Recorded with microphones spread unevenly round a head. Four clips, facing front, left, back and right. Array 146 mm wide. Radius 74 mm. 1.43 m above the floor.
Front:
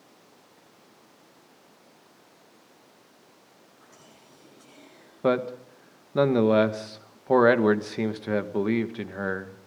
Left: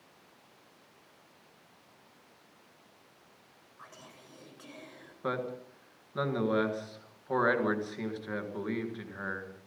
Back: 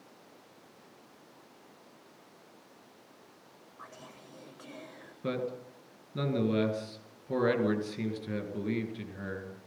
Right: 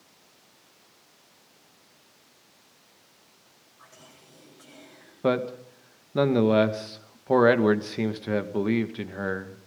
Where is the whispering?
165° left, 7.5 m.